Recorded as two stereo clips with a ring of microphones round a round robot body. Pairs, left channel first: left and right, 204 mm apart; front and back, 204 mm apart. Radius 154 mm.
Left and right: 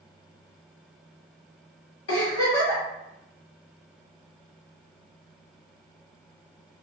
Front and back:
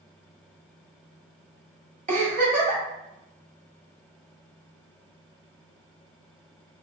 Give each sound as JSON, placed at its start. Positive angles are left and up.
{"t": 2.1, "sound": "a giggle", "azimuth_deg": 130, "distance_m": 1.6}